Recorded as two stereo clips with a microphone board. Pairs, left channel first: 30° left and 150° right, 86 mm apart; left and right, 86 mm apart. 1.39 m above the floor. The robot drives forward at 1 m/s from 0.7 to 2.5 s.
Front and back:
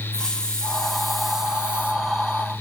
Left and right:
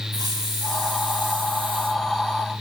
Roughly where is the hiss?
Ahead right.